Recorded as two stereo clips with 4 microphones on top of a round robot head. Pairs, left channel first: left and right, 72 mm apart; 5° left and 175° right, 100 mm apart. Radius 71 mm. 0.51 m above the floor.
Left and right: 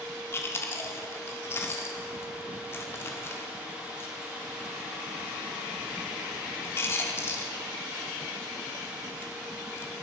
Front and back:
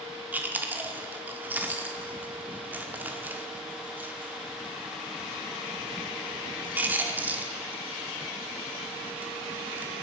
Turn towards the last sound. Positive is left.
turn(degrees=120)